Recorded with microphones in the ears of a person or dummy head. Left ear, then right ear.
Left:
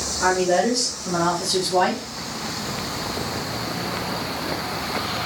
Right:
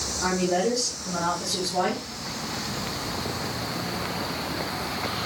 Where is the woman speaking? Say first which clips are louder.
Left 6 dB; 80° left, 2.5 m; by 2.0 s 75° left (ahead or behind), 1.7 m.